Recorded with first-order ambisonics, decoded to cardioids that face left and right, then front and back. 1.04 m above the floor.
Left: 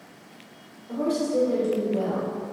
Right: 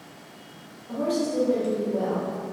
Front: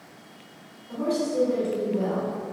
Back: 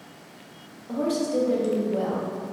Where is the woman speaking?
Straight behind, 0.8 m.